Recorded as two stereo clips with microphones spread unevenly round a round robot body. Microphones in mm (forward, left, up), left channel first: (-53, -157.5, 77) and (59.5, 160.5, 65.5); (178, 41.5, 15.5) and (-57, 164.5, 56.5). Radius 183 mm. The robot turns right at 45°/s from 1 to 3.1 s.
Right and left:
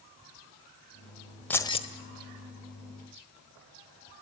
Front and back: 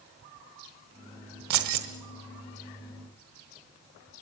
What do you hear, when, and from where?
1.5 s keys jangling: 165° left, 1.3 m; by 1.9 s straight behind, 1.3 m